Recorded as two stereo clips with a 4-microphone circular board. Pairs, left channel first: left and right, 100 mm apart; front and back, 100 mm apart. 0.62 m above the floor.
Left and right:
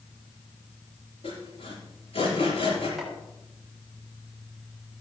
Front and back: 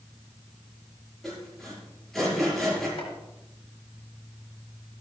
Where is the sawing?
85° left, 6 m.